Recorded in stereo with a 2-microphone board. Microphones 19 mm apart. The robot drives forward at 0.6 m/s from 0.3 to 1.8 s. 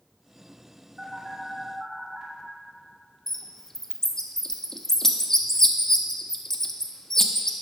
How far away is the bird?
About 0.5 m.